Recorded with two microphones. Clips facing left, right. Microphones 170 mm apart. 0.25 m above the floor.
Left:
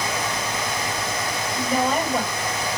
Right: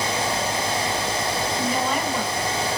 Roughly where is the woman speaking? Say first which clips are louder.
Left 5 dB; left.